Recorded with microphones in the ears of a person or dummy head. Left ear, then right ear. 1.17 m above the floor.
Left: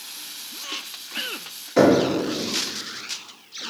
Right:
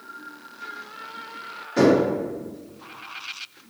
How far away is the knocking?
About 0.7 m.